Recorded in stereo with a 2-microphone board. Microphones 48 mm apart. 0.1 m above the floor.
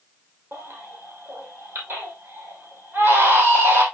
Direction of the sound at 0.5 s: 60° right (ahead or behind).